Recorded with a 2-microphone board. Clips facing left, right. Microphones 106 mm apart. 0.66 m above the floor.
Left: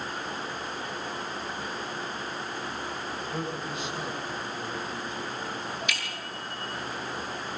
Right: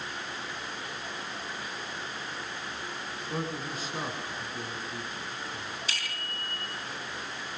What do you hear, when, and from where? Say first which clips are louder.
3.3 s a man speaking: right 1 dB; 40° right (ahead or behind), 7 m
5.9 s a bicycle bell: left 3 dB; 30° right (ahead or behind), 8 m